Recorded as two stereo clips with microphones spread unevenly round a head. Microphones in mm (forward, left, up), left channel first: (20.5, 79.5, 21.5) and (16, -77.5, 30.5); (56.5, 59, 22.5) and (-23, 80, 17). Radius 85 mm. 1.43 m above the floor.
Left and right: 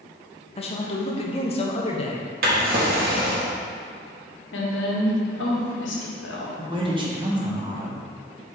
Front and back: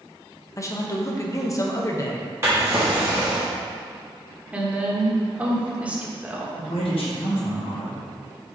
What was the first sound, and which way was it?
A man speaking, 35° left.